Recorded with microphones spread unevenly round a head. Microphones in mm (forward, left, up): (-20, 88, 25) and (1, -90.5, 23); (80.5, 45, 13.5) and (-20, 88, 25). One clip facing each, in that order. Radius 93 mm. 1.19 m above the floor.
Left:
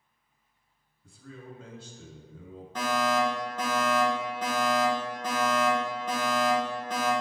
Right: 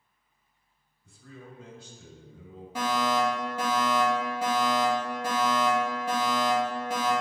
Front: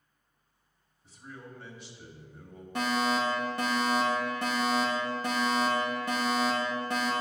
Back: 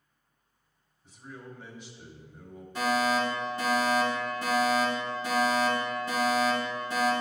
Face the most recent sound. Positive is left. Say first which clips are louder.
# even, back 2 dB
turn(degrees=-5)